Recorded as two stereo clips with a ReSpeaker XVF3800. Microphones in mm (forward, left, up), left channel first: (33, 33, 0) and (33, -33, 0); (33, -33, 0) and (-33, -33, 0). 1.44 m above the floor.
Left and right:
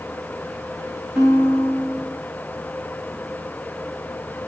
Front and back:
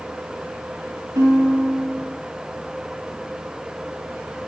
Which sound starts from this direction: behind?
A guitar, at 1.1 s.